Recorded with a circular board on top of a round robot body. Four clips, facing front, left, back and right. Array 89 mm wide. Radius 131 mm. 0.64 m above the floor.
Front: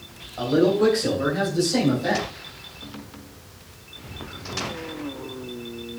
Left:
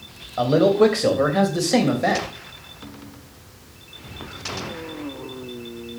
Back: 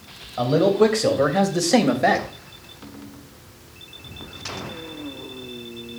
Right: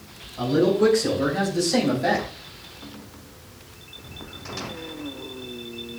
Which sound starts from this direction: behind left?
A man speaking, at 0.4 s.